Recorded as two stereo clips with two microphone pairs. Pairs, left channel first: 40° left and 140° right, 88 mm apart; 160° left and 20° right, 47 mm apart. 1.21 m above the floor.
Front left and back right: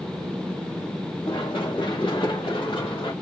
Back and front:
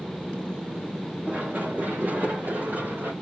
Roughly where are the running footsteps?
Ahead left.